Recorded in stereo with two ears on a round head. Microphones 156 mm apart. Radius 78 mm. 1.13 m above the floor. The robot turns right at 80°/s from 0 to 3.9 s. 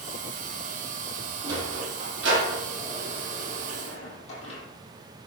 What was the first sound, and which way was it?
A sliding door, 15° right (ahead or behind).